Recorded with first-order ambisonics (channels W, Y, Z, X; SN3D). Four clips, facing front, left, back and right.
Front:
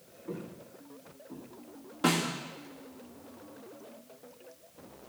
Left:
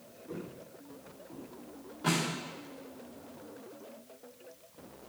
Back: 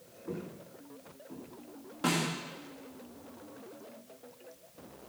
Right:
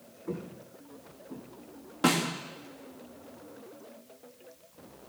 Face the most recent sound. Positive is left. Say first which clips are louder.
# right 5 dB, front 3 dB
turn(degrees=-85)